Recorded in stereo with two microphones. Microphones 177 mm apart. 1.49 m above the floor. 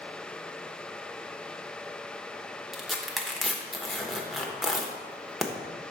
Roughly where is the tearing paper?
Centre.